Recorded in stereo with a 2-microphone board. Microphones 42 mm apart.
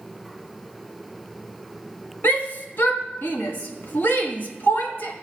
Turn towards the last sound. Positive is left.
turn(degrees=55)  # may be behind; listen again after turning